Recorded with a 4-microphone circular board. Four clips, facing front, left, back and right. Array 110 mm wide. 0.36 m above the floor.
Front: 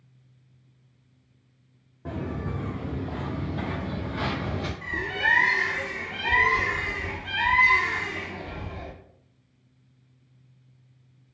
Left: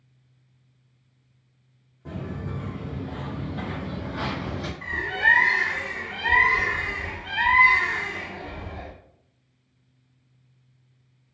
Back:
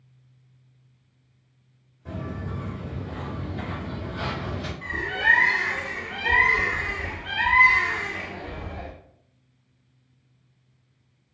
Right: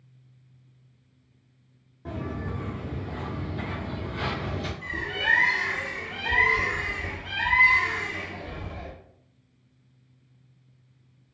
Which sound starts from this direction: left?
A bird, at 4.8 s.